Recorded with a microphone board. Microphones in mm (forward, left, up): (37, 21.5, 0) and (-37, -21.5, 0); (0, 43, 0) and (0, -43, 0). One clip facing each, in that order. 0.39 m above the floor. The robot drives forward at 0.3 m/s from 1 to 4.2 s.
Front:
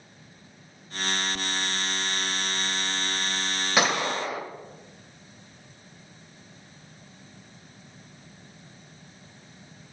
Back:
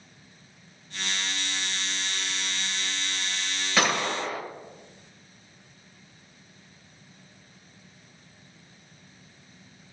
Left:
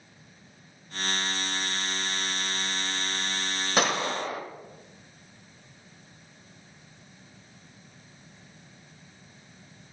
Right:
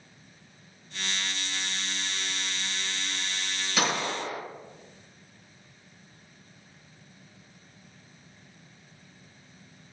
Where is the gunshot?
100° left, 1.5 m; by 4.4 s 105° left, 1.5 m.